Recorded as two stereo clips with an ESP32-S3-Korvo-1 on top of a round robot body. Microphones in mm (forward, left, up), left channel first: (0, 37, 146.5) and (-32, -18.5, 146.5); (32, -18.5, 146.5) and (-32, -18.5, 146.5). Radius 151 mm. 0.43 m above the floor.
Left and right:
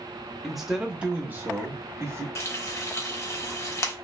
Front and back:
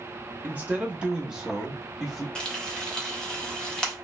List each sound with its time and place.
0.4 s a man speaking: 150° left, 0.9 m; by 2.2 s 90° right, 1.1 m
2.4 s frying: 70° left, 1.1 m